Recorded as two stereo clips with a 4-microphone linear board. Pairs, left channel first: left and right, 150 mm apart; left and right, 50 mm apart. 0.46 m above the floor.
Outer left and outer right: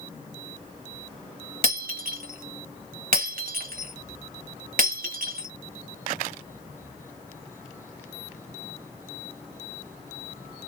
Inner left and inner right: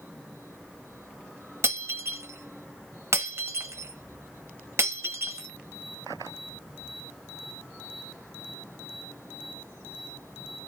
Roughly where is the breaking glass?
Right.